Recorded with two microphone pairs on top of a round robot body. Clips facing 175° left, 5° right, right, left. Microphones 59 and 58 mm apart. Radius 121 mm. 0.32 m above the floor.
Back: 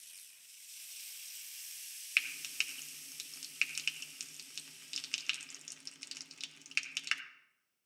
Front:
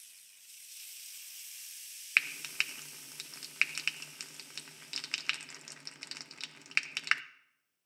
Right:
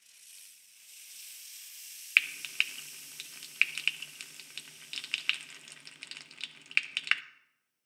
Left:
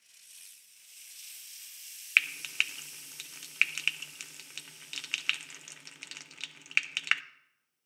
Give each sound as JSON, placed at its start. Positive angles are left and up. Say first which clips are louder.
{"t": 2.2, "sound": "frying", "louder": "front 4 dB, left 1 dB", "azimuth_deg": 20, "distance_m": 0.6}